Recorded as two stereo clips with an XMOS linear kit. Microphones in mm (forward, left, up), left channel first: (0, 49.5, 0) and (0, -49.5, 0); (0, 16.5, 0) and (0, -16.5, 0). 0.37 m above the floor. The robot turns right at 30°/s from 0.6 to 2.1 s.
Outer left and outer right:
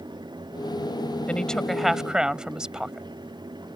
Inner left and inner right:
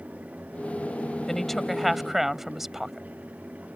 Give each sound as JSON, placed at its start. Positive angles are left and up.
{"t": 1.3, "sound": "a woman speaking", "side_deg": 15}